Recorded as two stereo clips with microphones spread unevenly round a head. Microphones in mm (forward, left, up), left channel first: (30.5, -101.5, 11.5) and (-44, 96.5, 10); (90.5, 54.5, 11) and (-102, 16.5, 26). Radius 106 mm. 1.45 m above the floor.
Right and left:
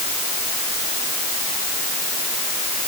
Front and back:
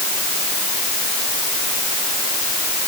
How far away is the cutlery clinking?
I don't hear cutlery clinking.